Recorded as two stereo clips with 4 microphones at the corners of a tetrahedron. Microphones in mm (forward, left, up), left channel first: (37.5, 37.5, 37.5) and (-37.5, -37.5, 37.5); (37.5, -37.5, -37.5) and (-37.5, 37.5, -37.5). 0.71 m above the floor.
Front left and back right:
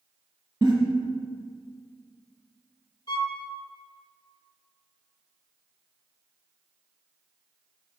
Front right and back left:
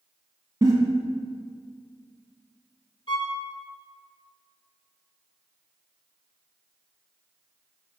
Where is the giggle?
Straight behind, 1.5 m.